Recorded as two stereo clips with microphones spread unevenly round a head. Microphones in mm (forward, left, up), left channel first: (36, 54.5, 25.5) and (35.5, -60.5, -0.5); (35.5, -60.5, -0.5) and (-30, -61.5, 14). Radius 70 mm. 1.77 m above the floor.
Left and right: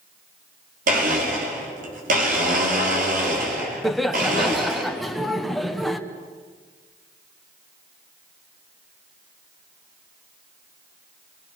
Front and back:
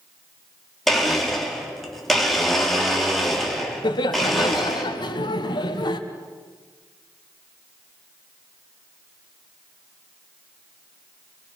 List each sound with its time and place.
0.9 s a blender: 90° right, 4.5 m
3.8 s laughter: straight ahead, 1.6 m